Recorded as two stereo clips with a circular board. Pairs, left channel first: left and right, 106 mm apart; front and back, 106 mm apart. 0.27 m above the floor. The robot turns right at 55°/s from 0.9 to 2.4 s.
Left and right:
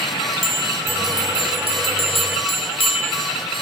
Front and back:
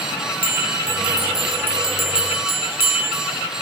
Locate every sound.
0.4 s a bell: 30° left, 4.5 m; by 3.3 s 110° left, 4.5 m